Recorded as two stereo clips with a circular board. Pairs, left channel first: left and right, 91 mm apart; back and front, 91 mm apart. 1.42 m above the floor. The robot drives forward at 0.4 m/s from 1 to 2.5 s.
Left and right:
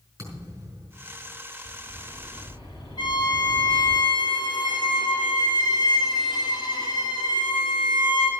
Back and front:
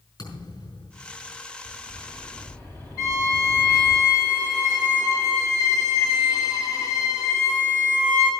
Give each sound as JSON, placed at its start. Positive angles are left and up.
{"t": 0.2, "sound": "a thud", "azimuth_deg": -145, "distance_m": 5.5}
{"t": 1.6, "sound": "a bird", "azimuth_deg": 110, "distance_m": 4.0}
{"t": 3.0, "sound": "a violin", "azimuth_deg": 130, "distance_m": 5.0}